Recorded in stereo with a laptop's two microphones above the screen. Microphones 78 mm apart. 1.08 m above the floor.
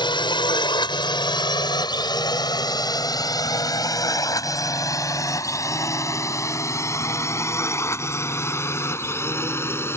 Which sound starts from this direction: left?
A drone, at 0.0 s.